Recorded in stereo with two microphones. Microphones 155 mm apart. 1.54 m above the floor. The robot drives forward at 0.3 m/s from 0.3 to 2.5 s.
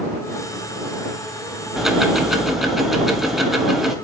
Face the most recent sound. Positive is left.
turn(degrees=0)  # may be behind; listen again after turning